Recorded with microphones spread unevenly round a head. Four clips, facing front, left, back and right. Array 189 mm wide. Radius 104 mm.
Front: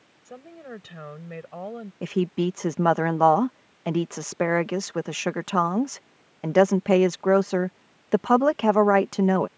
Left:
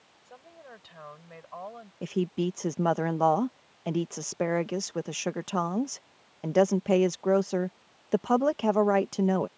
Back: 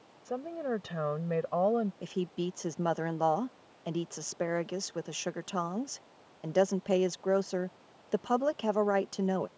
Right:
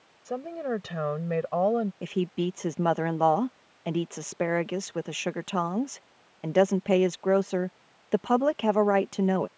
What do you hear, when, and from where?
0.2 s a woman speaking: 95° right; by 1.9 s 105° right
2.0 s a woman speaking: 5° right